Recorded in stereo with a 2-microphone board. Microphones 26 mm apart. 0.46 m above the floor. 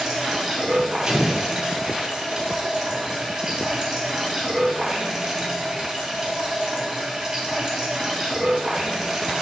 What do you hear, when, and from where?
0.0 s running water: 15° right (ahead or behind), 3 m
1.1 s an explosion: 20° right (ahead or behind), 2.5 m